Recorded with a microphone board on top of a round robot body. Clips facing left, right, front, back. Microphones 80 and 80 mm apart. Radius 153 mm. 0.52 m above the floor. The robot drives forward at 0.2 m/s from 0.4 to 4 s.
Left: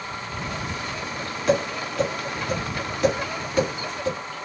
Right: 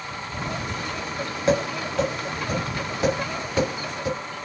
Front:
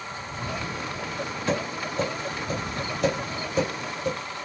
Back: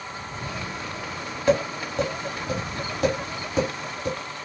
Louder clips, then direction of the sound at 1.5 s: Even, back 7 dB; 150° right.